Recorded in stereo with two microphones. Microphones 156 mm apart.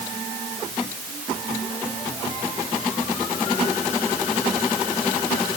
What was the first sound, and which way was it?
Only background noise.